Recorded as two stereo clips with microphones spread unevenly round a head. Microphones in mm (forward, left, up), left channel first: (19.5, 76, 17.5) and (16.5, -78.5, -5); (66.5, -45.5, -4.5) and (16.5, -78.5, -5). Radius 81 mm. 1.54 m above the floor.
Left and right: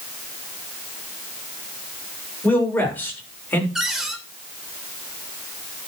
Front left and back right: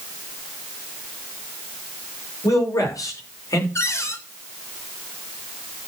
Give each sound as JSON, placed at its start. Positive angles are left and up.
{"t": 2.4, "sound": "a man speaking", "azimuth_deg": 10, "distance_m": 6.5}
{"t": 3.8, "sound": "a cupboard door", "azimuth_deg": 0, "distance_m": 3.0}